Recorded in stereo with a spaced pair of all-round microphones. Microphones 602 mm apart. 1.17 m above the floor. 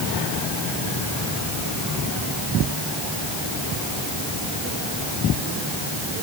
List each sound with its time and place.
Only background noise.